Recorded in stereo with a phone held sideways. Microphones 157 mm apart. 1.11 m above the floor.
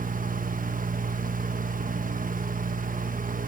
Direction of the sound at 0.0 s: 60° right (ahead or behind).